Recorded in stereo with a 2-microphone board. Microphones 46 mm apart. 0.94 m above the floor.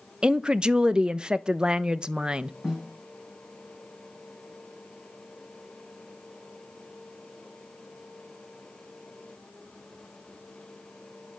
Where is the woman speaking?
20° right (ahead or behind), 0.5 m.